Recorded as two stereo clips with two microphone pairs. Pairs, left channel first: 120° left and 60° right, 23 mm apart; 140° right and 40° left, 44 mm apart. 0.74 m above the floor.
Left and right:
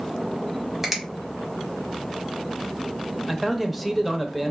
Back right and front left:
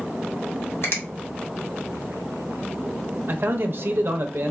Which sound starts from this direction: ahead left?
A man speaking, at 3.3 s.